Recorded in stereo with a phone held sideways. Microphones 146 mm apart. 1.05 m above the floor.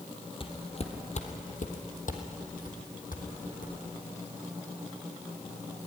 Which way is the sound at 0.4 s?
40° left (ahead or behind).